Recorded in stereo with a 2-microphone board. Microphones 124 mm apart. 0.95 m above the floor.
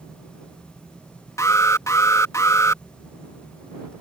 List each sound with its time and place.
1.4 s an alarm: 25° left (ahead or behind)